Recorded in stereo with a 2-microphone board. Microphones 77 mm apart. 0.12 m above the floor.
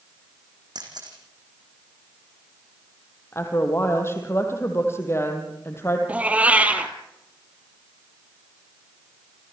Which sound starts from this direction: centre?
A cat meowing, at 6.1 s.